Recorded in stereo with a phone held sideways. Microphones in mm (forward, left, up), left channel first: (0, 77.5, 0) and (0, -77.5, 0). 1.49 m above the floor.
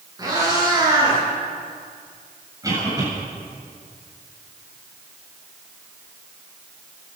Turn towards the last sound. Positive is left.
turn(degrees=-25)  # may be behind; listen again after turning